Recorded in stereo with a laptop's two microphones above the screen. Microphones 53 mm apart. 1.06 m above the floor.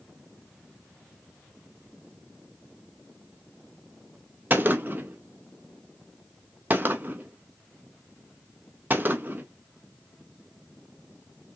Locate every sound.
4.5 s a gunshot: 35° right (ahead or behind), 0.6 m